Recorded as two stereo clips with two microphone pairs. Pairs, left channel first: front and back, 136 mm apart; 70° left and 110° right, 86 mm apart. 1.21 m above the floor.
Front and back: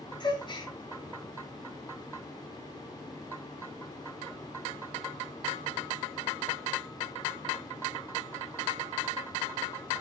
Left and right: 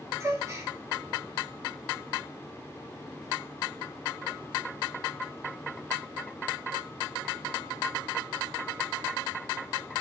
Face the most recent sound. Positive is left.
turn(degrees=-55)